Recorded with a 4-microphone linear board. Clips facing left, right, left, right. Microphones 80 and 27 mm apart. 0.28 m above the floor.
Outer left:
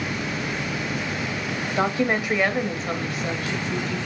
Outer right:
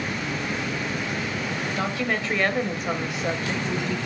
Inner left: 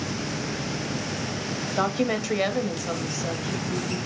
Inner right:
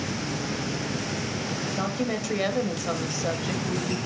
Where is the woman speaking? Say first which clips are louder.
Outer left 6 dB, inner left 6 dB; 30° left (ahead or behind), 1.0 m; by 4.0 s 45° right (ahead or behind), 1.1 m.